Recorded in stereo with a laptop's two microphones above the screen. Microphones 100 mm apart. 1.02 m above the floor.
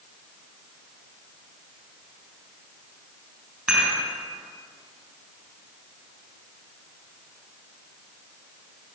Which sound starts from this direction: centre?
Dishes clattering, at 3.7 s.